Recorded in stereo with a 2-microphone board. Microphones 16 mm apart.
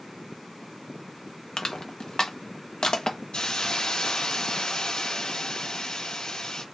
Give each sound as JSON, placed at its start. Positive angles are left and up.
{"t": 1.6, "sound": "crushing", "side_deg": 45, "distance_m": 0.9}
{"t": 3.3, "sound": "a hiss", "side_deg": 65, "distance_m": 2.0}